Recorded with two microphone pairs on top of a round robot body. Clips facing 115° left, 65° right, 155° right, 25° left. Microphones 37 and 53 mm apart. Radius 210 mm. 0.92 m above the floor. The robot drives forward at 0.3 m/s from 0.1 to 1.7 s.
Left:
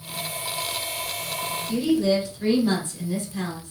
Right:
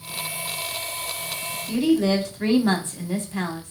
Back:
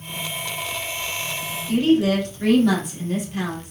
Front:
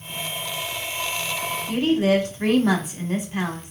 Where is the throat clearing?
I don't hear throat clearing.